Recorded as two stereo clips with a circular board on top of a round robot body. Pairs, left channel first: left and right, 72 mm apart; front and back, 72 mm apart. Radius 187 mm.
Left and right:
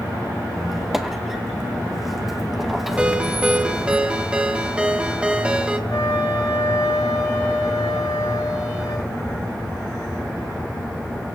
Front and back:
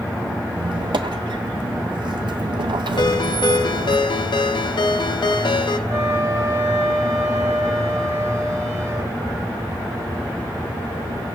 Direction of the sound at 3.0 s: 15° right.